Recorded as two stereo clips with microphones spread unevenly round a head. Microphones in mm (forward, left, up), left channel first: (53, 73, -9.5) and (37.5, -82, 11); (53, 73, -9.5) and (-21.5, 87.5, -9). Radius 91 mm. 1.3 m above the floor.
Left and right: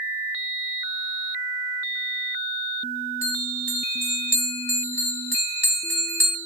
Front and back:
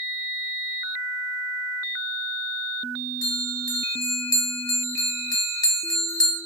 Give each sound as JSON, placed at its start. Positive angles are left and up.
{"t": 3.2, "sound": "a bell", "azimuth_deg": 10, "distance_m": 0.9}